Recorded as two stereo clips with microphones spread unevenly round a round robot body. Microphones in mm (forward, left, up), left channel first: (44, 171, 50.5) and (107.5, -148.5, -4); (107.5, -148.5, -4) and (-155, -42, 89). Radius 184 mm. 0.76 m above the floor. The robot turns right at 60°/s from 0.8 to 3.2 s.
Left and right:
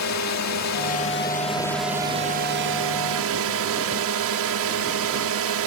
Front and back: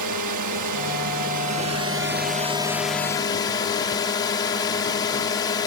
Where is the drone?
140° left; by 5.7 s 80° right.